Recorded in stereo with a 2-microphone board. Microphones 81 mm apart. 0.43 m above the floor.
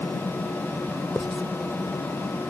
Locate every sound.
1.1 s writing: centre (ahead or behind)